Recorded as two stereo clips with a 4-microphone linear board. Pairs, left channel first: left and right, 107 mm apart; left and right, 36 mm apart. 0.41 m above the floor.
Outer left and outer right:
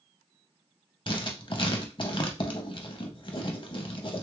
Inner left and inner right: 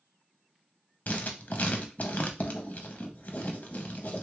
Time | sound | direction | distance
1.1 | writing | 50° left (ahead or behind) | 0.6 m